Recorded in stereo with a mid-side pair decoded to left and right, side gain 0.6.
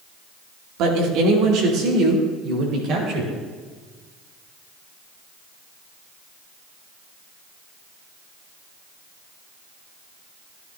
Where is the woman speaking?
70° right, 2.5 m; by 3.3 s 60° right, 5 m.